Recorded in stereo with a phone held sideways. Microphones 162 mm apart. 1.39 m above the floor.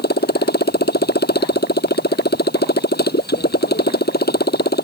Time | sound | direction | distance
0.0 | a motorcycle | 85° left | ?